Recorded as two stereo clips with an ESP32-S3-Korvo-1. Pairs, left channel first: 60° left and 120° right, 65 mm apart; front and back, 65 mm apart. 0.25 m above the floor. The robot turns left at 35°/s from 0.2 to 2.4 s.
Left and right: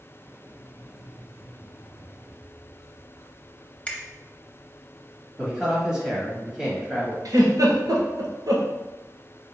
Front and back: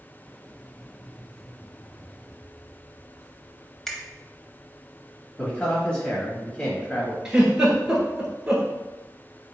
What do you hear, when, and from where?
3.9 s a finger snap: 70° left, 0.7 m
5.4 s a man speaking: 55° right, 1.1 m
7.2 s a giggle: 100° right, 1.4 m